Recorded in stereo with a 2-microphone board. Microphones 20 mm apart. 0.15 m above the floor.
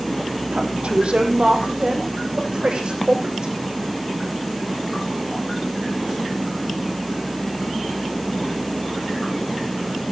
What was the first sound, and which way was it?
A woman speaking, 70° right (ahead or behind).